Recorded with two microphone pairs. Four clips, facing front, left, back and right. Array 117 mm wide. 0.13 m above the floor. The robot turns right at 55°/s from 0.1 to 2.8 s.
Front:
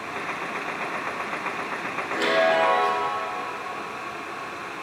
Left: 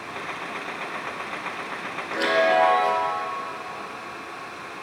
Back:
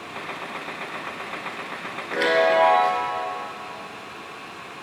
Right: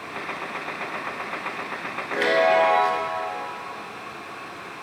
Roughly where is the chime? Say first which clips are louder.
Right 1 dB, back 2 dB; behind right.